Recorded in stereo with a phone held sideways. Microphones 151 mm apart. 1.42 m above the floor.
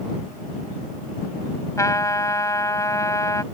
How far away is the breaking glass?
I don't hear breaking glass.